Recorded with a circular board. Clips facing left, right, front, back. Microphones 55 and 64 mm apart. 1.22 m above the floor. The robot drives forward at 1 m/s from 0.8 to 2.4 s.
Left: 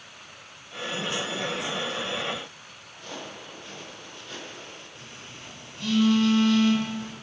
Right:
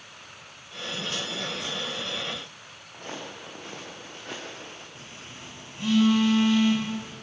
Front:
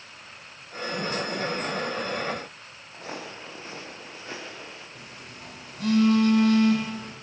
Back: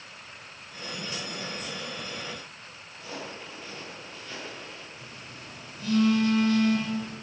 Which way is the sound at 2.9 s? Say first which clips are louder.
Right 1 dB, front 2 dB; 40° right.